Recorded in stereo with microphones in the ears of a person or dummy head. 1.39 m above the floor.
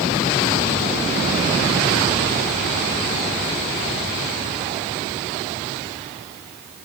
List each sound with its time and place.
Only background noise.